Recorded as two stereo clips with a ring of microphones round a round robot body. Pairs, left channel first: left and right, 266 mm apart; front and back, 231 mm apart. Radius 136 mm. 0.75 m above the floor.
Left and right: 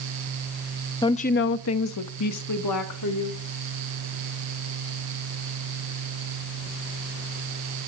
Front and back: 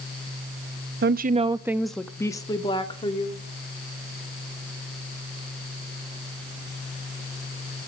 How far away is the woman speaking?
About 0.6 m.